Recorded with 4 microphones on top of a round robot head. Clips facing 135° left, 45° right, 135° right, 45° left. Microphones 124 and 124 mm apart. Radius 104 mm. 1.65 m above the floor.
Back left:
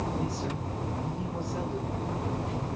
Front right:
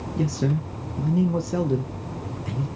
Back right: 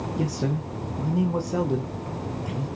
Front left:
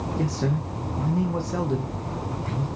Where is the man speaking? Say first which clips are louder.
Front right 7 dB, front left 1 dB; 55° right, 1.6 m.